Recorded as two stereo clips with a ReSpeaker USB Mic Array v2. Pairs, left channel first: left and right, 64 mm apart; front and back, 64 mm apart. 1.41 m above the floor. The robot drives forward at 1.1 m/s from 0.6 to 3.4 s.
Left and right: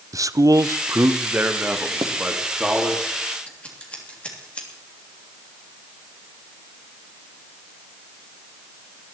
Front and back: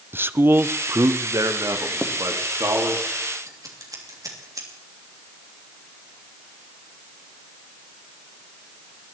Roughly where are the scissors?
Behind.